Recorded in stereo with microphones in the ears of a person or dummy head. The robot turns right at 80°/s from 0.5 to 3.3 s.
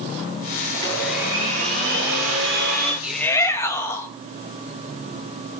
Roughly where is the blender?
Behind left.